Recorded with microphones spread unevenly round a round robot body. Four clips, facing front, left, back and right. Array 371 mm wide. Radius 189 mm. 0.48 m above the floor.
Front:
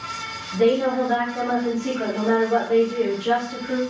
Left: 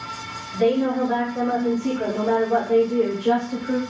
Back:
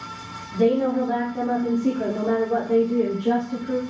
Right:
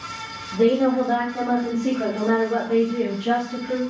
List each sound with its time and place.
0.5 s a woman speaking: 115° right, 1.9 m; by 3.8 s 150° left, 2 m